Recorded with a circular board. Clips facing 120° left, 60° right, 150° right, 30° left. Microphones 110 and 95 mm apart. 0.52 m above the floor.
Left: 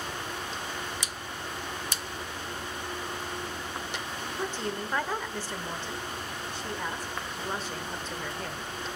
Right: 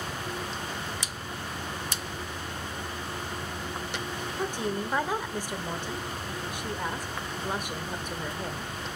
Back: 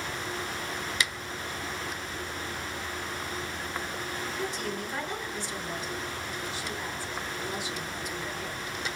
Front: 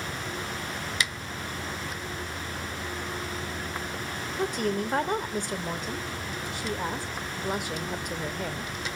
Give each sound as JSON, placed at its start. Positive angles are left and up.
{"t": 0.0, "sound": "an insect", "azimuth_deg": -15, "distance_m": 1.3}
{"t": 4.3, "sound": "a woman speaking", "azimuth_deg": 15, "distance_m": 1.7}